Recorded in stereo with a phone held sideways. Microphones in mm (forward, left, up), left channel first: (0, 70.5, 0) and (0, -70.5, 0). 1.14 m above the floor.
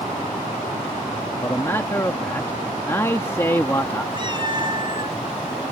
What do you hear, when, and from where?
1.4 s a man speaking: 20° left (ahead or behind)
4.1 s a cat meowing: 35° right (ahead or behind)